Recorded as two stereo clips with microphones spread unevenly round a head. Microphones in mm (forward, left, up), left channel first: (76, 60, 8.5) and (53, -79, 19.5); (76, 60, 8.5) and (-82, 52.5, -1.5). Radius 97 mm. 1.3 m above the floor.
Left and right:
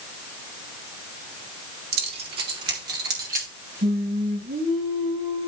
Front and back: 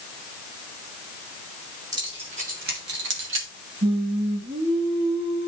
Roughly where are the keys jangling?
Right.